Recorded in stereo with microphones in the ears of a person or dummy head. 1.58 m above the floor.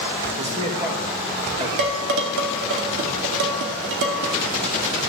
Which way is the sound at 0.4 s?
30° right (ahead or behind).